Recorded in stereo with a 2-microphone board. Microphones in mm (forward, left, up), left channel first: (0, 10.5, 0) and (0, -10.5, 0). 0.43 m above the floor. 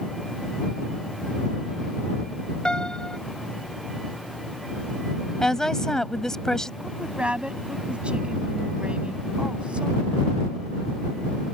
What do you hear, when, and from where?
2.6 s a piano: 40° left (ahead or behind)
5.4 s a woman speaking: 30° left (ahead or behind)
6.8 s a woman speaking: 65° right (ahead or behind)